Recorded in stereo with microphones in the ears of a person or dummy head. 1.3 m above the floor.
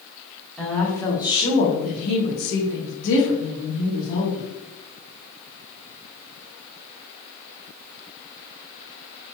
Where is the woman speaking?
Centre (ahead or behind), 0.9 m; by 4.5 s 70° left (ahead or behind), 1.6 m.